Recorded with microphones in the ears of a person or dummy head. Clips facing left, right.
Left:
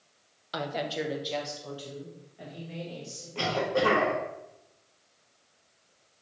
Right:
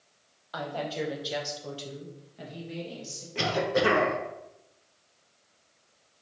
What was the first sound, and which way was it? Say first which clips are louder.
A woman speaking: left 1 dB; 35° left (ahead or behind).